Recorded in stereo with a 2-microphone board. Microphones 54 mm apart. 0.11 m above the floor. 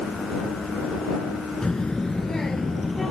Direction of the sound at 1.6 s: 15° left (ahead or behind).